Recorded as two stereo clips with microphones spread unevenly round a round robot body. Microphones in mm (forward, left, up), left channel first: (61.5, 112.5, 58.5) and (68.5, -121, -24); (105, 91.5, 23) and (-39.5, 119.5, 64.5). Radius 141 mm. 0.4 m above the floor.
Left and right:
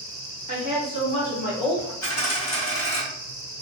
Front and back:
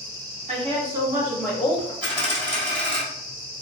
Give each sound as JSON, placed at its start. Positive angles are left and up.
{"t": 0.5, "sound": "a woman speaking", "azimuth_deg": 165, "distance_m": 0.9}
{"t": 2.0, "sound": "a dropped coin", "azimuth_deg": 115, "distance_m": 1.7}